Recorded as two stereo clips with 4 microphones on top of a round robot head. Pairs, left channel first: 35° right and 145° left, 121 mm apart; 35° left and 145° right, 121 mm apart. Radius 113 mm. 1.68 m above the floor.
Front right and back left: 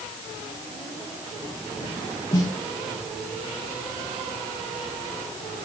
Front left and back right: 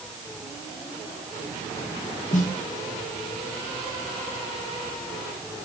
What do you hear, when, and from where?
2.3 s a snare drum: 15° left, 0.9 m